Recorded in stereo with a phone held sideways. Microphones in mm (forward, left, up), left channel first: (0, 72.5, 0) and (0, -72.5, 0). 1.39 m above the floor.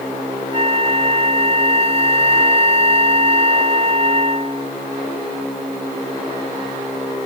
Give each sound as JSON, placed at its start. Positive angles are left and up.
{"t": 0.5, "sound": "a flute", "side_deg": -40}